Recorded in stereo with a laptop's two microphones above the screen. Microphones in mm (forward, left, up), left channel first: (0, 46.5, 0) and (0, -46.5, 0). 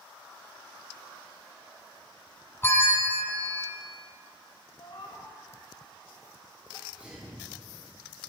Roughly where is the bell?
Left.